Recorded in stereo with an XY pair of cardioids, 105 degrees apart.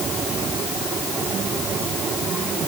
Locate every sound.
Only background noise.